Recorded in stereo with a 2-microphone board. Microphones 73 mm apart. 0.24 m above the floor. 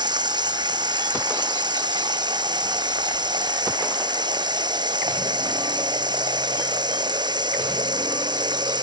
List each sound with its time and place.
0.0 s running water: 80° right